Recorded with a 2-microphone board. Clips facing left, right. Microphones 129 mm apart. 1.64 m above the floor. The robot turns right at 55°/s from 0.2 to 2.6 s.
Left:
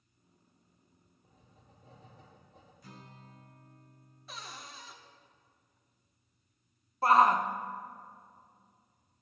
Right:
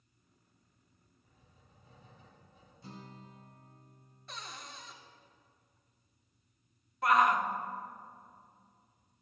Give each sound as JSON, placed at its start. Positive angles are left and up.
{"t": 1.2, "sound": "writing", "azimuth_deg": 45, "distance_m": 3.0}
{"t": 2.8, "sound": "a guitar", "side_deg": -30, "distance_m": 1.2}
{"t": 4.3, "sound": "a cupboard door", "side_deg": 5, "distance_m": 1.0}
{"t": 7.0, "sound": "a shout", "side_deg": 35, "distance_m": 0.7}